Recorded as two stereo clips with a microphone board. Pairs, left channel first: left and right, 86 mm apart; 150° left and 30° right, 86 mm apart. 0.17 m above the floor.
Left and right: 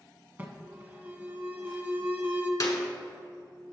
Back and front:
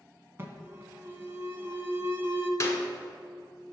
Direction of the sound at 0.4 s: 50° right.